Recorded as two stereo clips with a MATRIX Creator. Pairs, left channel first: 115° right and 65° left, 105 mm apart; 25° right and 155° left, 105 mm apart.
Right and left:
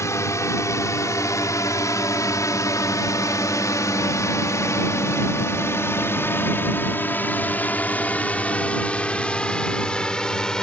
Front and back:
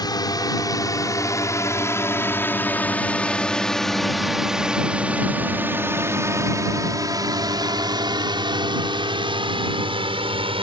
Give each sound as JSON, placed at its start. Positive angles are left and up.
{"t": 0.0, "sound": "a drone", "azimuth_deg": -60}